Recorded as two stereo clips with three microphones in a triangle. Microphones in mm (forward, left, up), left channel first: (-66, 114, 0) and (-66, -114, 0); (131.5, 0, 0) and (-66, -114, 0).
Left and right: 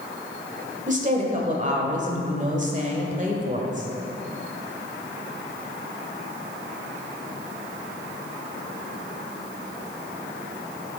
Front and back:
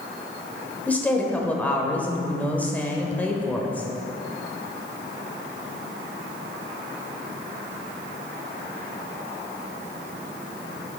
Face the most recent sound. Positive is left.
turn(degrees=-50)